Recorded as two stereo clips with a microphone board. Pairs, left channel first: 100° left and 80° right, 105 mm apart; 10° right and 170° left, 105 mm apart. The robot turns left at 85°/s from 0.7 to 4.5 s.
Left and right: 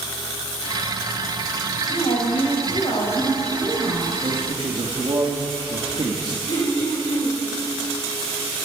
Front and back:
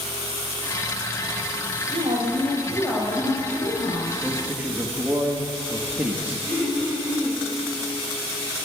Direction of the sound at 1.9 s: 145° left.